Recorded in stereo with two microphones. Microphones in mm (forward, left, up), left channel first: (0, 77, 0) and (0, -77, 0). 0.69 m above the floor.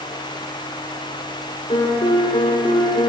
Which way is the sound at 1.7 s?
40° left (ahead or behind).